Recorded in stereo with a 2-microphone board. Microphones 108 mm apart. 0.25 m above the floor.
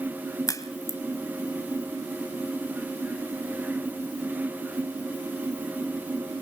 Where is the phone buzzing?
I don't hear a phone buzzing.